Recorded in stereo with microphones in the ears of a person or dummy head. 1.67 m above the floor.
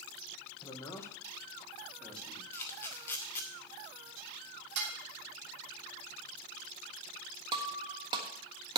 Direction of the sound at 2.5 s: 15° left (ahead or behind).